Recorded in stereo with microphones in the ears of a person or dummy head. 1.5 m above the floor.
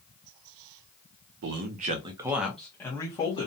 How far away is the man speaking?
About 0.6 m.